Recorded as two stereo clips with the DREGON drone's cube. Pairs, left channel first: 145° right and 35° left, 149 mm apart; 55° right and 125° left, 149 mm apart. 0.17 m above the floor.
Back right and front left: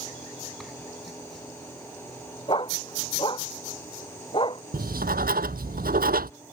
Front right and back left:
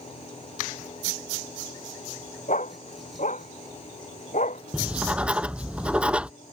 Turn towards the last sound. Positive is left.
turn(degrees=40)